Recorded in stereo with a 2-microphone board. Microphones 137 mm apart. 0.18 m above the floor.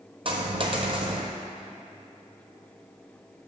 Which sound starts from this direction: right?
A dropped coin, at 0.2 s.